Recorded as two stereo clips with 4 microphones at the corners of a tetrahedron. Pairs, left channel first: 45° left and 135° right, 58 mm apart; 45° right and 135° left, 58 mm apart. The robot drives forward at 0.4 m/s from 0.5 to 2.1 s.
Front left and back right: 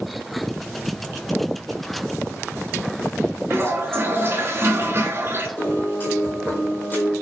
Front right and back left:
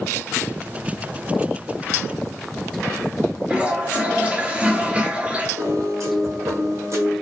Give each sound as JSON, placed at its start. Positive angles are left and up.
{"t": 3.5, "sound": "a toilet flushing", "azimuth_deg": -165, "distance_m": 0.7}
{"t": 5.6, "sound": "a piano", "azimuth_deg": 105, "distance_m": 1.6}